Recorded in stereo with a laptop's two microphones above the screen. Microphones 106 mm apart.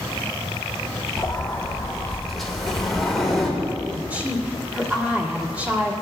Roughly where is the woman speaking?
Centre.